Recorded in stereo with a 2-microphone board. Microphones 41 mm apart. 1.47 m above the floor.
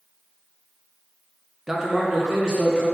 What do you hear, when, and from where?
1.7 s a man speaking: 15° right (ahead or behind), 0.5 m; by 2.9 s 20° right (ahead or behind), 2 m